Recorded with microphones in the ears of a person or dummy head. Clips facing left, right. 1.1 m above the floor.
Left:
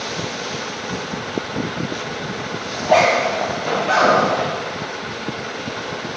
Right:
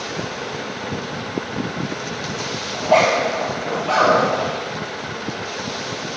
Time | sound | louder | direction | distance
2.7 | a zipper | left 1 dB | 20° left (ahead or behind) | 1.2 m